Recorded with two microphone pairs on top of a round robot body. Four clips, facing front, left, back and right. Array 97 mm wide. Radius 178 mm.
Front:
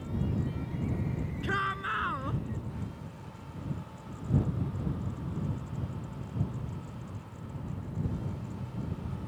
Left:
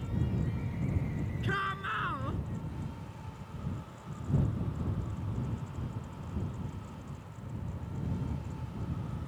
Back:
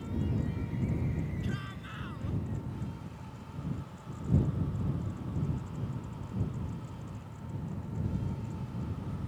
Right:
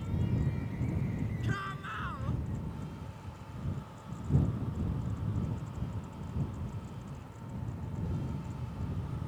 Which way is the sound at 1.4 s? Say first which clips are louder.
Left 4 dB, front 8 dB; 25° left.